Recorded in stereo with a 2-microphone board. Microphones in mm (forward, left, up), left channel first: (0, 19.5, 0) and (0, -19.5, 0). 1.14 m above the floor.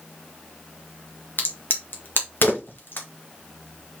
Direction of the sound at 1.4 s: 65° left (ahead or behind).